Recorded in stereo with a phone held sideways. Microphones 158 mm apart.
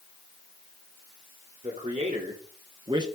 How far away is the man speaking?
About 2.5 m.